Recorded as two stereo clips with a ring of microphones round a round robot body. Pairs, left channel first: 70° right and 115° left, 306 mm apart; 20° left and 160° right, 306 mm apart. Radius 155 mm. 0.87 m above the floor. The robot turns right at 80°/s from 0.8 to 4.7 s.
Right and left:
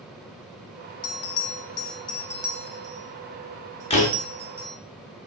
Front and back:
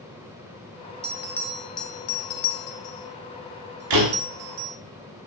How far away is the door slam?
About 6 m.